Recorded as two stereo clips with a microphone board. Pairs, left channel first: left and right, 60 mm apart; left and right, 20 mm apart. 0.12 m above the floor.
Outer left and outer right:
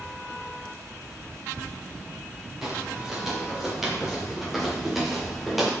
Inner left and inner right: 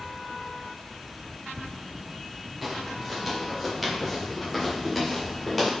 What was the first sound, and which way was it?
Footsteps, 5° right (ahead or behind).